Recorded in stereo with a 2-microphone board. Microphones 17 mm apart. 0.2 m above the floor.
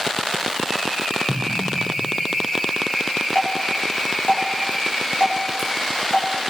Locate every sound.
1.3 s an explosion: 65° left (ahead or behind), 4.5 m
3.4 s dripping: 65° left (ahead or behind), 4.5 m